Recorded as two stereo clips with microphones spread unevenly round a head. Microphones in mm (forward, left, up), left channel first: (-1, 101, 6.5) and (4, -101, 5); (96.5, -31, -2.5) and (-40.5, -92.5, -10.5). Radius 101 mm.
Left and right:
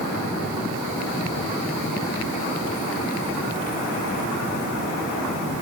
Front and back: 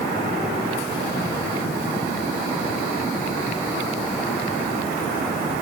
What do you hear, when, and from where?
Only background noise.